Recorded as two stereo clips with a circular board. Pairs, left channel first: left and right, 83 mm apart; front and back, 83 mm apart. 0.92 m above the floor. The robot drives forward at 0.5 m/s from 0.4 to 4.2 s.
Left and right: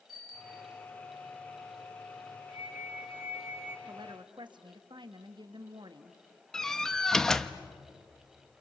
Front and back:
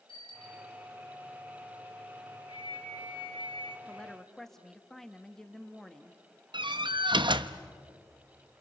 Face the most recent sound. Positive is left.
turn(degrees=175)